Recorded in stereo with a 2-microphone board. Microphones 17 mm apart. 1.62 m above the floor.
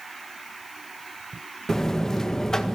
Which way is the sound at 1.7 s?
30° left (ahead or behind).